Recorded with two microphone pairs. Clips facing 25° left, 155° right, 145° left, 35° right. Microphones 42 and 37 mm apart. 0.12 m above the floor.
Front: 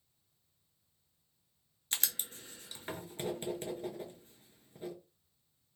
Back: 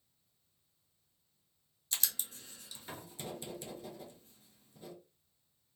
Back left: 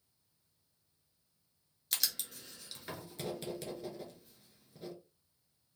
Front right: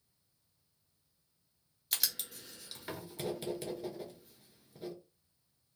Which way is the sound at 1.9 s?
45° left.